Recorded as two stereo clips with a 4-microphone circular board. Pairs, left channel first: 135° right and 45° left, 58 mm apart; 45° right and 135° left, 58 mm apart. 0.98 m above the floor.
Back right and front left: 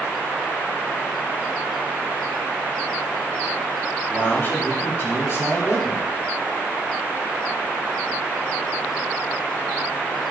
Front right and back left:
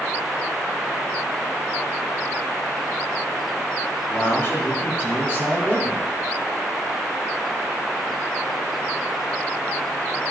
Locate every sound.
4.1 s a man speaking: 85° right, 2.5 m; by 6.1 s 95° right, 4 m